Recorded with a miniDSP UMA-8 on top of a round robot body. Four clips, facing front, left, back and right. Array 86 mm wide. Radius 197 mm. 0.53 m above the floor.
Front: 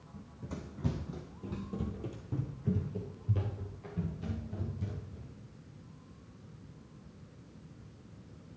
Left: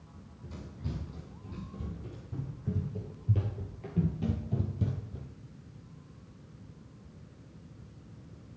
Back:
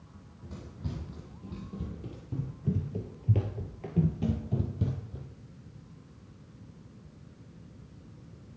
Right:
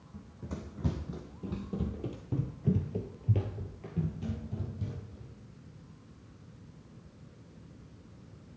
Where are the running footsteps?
60° right, 1.8 m; by 5.3 s 145° left, 1.2 m.